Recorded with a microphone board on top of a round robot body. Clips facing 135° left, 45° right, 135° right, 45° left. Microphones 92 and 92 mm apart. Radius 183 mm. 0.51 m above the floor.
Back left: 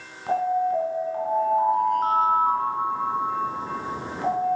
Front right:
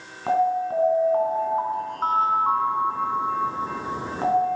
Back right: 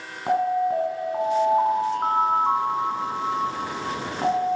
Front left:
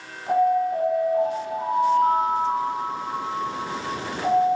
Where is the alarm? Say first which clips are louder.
Front right 1 dB, front left 2 dB; 95° right, 4 m.